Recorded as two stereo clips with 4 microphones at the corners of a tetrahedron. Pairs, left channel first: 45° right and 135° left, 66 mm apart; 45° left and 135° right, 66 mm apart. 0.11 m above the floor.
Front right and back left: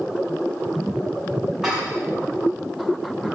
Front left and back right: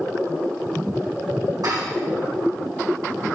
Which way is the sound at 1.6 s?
140° right.